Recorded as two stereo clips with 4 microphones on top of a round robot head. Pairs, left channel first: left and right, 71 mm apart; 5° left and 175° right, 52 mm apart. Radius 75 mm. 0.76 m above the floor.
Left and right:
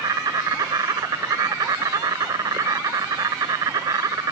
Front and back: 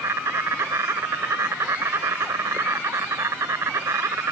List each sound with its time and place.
0.0 s an insect: 135° right